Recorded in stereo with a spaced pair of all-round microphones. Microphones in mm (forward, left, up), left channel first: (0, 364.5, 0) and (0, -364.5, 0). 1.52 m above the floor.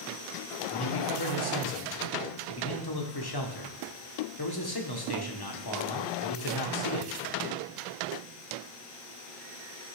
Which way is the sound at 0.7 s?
30° left (ahead or behind).